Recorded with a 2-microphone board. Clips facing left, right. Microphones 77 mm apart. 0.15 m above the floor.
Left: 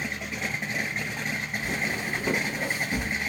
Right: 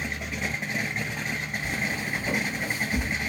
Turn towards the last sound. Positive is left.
turn(degrees=55)  # may be behind; listen again after turning